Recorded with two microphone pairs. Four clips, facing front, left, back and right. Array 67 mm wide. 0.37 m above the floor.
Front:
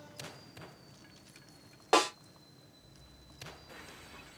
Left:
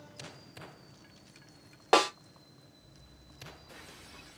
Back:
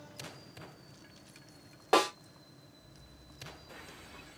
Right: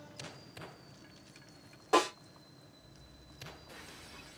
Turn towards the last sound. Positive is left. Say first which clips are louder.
# left 3 dB, even
turn(degrees=80)